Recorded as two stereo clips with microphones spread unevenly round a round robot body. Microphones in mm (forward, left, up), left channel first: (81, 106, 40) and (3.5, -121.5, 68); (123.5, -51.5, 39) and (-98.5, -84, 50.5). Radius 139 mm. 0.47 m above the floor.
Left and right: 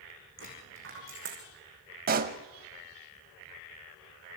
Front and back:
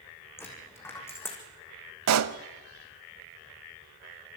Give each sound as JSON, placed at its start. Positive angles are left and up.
{"t": 0.4, "sound": "a dropped coin", "azimuth_deg": -70, "distance_m": 5.5}
{"t": 2.1, "sound": "a pop", "azimuth_deg": -165, "distance_m": 0.8}